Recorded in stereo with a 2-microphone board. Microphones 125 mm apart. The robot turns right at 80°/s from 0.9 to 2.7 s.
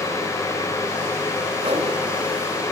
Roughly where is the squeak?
I don't hear a squeak.